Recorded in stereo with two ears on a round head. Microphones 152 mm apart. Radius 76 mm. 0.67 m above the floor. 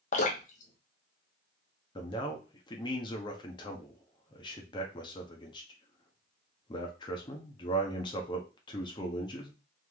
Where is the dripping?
50° left (ahead or behind), 1.1 m.